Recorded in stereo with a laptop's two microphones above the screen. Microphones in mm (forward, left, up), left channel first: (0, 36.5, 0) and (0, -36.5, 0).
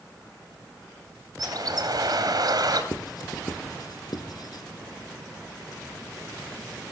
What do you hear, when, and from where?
1.4 s a bird: 60° right (ahead or behind), 3.5 m
2.9 s writing: 60° left (ahead or behind), 2 m